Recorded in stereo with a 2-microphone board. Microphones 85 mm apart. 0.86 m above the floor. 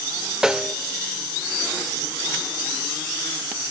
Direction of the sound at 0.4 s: 10° right (ahead or behind).